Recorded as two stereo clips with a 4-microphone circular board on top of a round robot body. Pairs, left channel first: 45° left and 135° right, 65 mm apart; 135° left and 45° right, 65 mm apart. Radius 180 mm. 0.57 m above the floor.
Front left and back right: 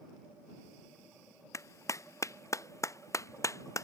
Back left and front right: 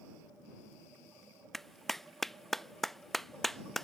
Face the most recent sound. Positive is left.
turn(degrees=50)